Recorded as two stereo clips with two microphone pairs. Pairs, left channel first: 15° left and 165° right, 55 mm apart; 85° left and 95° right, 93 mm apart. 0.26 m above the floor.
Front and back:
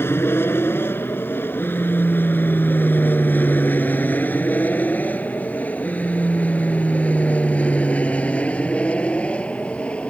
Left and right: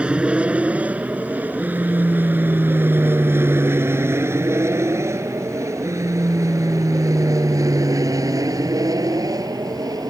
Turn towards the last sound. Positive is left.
turn(degrees=-50)